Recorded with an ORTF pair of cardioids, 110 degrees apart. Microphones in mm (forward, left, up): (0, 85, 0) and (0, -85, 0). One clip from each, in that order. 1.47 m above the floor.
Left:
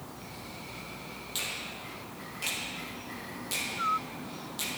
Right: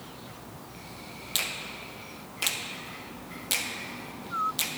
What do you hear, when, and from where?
1.4 s a finger snap: 45° right, 1.1 m